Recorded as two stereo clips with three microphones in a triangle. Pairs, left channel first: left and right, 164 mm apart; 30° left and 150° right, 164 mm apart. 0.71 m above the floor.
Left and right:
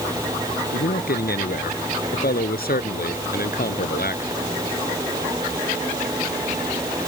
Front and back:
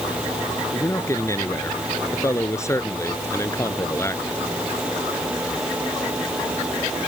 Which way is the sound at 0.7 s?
100° left.